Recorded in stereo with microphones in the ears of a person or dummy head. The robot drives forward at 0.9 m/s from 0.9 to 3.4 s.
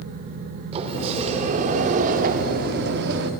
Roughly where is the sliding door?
Right.